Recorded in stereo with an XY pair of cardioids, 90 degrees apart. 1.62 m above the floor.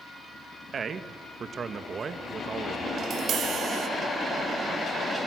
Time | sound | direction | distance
0.7 | a man speaking | 50° right | 1.9 m
3.0 | tapping | 70° right | 2.5 m